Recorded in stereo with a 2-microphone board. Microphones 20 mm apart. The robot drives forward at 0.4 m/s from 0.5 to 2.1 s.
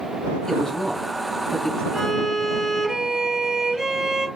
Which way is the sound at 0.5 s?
20° left (ahead or behind).